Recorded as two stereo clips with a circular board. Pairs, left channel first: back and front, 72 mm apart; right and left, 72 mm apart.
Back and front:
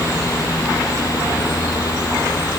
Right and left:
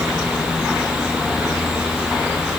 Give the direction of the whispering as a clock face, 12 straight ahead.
I don't hear whispering.